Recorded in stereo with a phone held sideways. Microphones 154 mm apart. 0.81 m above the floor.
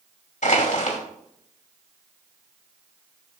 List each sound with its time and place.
0.4 s crushing: 55° left (ahead or behind), 2.5 m